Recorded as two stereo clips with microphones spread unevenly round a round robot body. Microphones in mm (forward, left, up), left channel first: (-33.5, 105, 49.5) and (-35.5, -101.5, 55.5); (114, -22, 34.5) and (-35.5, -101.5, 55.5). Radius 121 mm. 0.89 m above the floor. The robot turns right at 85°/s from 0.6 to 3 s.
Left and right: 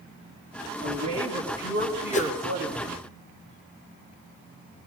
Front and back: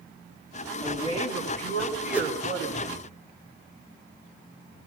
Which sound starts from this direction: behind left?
A whoosh, at 2.1 s.